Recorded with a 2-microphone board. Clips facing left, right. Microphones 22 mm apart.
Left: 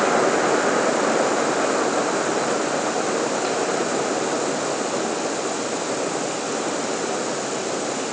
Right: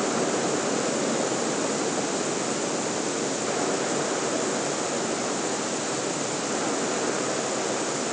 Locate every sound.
Only background noise.